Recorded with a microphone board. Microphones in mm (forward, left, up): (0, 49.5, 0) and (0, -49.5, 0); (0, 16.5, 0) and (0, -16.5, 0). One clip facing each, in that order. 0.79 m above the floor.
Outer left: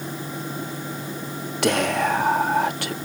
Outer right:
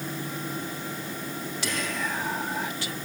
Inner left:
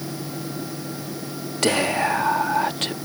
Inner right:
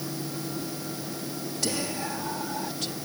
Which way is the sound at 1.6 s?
65° left (ahead or behind).